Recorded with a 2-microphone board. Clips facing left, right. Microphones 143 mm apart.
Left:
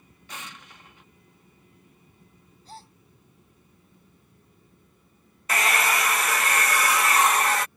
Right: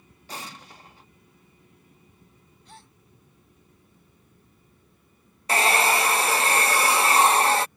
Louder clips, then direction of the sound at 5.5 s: Right 4 dB; 30° right (ahead or behind).